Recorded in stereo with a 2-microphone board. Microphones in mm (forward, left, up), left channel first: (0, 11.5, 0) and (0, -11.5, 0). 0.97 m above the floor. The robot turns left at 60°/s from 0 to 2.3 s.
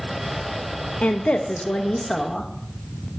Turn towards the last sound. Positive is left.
turn(degrees=15)